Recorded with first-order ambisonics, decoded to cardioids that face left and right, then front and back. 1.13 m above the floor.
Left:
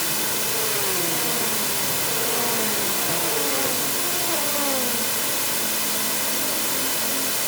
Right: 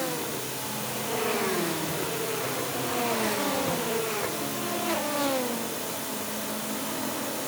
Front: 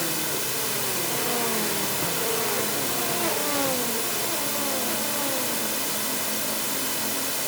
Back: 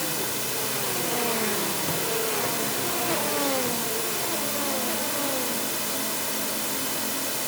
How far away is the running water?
About 1.1 m.